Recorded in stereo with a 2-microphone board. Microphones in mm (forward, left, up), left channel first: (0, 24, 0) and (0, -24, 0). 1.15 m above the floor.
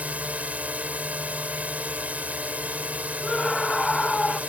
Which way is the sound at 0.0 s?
30° right (ahead or behind).